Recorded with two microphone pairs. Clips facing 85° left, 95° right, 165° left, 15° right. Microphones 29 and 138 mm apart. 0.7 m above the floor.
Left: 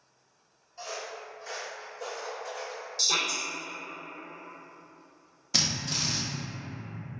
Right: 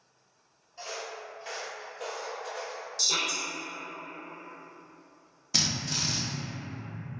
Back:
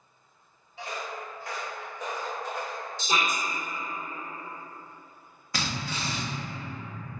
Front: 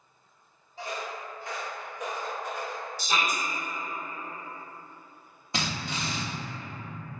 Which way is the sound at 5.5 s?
5° left.